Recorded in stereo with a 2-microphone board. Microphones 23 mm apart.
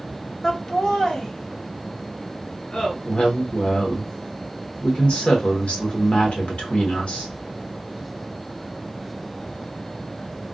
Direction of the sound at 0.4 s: 15° left (ahead or behind).